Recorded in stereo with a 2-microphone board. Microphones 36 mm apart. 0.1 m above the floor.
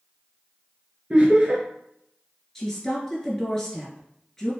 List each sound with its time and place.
1.1 s laughter: 30° right (ahead or behind), 1.2 m
2.5 s a woman speaking: 10° left (ahead or behind), 1.8 m